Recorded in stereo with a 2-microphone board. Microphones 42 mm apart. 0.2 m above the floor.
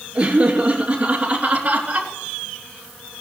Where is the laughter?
25° right (ahead or behind), 3.5 m; by 2.1 s 35° right (ahead or behind), 2.5 m.